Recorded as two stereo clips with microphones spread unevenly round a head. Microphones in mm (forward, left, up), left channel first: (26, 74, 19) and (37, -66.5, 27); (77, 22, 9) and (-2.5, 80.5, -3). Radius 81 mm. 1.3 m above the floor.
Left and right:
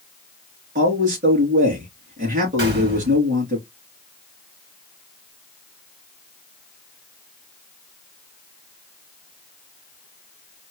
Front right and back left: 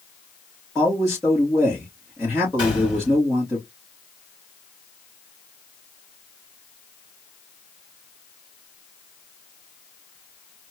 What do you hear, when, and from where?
0.8 s a man speaking: 125° right, 2.5 m
2.6 s a gunshot: 100° right, 2.5 m